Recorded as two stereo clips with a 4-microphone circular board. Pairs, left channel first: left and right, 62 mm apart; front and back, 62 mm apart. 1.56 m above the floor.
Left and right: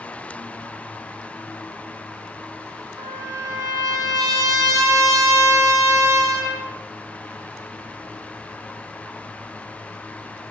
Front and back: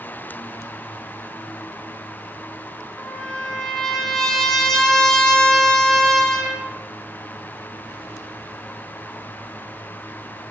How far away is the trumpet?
About 2.5 m.